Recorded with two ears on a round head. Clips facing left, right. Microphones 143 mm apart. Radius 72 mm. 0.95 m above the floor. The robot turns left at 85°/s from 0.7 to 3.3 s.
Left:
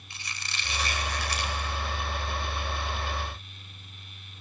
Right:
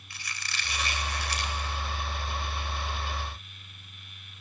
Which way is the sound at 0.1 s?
160° left.